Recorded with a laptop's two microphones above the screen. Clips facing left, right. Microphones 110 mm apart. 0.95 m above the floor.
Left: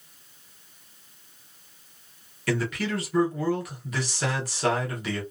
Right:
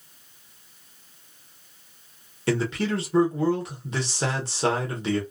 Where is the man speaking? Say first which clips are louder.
Right 3 dB; 25° right (ahead or behind), 0.9 m.